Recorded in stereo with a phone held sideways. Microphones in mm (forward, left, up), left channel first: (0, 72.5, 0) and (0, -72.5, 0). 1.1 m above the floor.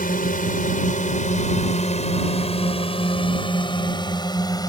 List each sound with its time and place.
0.0 s a drone: 75° left (ahead or behind); by 4.7 s 25° left (ahead or behind)